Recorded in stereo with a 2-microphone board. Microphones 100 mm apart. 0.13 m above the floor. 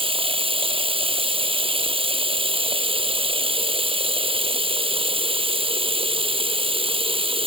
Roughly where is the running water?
Right.